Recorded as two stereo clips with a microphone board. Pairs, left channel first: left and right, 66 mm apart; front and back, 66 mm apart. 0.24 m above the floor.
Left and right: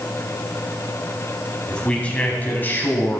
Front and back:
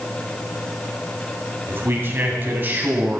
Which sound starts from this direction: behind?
A man speaking, at 1.7 s.